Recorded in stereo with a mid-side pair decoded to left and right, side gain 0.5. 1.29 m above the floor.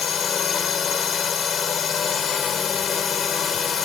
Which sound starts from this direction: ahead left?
A drone, at 0.0 s.